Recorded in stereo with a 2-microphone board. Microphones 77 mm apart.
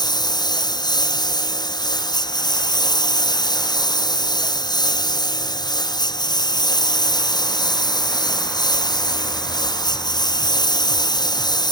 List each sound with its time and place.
0.0 s a lawn mower: 65° left (ahead or behind)